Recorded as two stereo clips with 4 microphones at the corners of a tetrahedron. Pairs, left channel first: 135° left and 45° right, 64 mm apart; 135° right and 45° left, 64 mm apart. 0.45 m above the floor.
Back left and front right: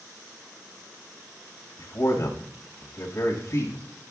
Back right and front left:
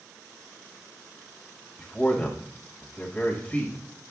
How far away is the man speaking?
About 1.8 m.